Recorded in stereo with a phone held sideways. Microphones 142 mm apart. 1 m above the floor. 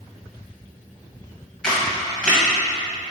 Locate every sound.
1.6 s a camera shutter: 5° left (ahead or behind), 1.9 m